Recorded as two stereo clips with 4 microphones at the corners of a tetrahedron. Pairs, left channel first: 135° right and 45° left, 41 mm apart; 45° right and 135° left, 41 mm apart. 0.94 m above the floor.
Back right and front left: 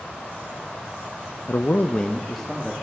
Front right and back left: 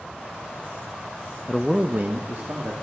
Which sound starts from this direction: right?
A man speaking, at 1.5 s.